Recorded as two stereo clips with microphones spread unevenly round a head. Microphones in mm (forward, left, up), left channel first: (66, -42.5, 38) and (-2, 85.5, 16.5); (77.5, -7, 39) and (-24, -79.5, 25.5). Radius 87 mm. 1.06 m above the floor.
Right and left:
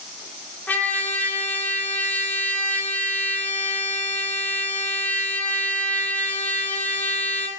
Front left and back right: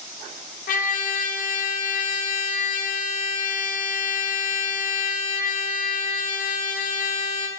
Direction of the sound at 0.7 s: 20° left.